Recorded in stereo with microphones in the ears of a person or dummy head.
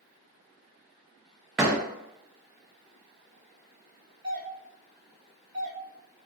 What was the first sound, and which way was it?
A door slam, 5° right (ahead or behind).